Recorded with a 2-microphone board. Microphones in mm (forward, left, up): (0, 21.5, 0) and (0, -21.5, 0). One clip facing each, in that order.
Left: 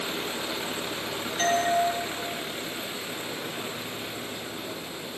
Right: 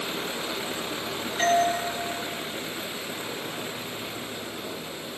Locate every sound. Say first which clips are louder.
1.4 s a doorbell: right 3 dB; centre (ahead or behind), 2.5 m